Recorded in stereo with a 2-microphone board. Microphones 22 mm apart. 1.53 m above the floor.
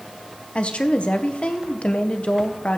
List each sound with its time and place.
0.6 s a woman speaking: 55° left (ahead or behind), 1.3 m